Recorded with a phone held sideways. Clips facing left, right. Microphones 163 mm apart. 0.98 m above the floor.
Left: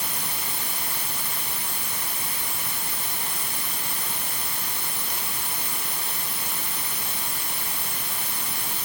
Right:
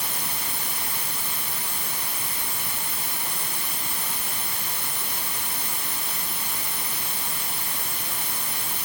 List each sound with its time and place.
Only background noise.